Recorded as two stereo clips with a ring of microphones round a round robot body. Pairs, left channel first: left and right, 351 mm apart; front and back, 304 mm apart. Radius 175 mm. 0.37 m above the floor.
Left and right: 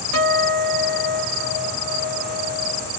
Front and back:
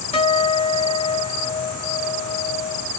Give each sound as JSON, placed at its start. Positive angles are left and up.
{"t": 0.1, "sound": "a guitar", "azimuth_deg": 70, "distance_m": 2.5}